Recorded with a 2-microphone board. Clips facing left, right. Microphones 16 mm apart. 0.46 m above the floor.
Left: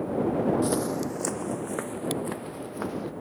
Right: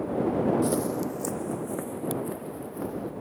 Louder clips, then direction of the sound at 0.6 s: Even; 20° left (ahead or behind).